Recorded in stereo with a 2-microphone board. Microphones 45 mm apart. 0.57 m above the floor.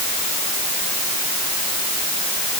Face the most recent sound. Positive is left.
No sound to turn to.